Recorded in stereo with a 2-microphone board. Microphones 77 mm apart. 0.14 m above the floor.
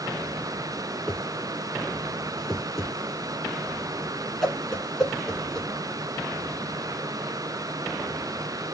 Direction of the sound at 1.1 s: 5° left (ahead or behind).